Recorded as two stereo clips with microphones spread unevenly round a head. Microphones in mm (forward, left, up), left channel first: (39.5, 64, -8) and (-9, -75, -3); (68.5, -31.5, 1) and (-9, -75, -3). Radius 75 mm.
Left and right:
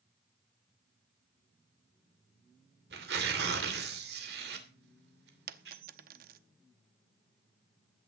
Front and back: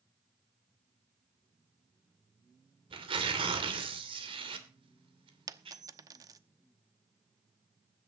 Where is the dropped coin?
105° right, 0.9 m.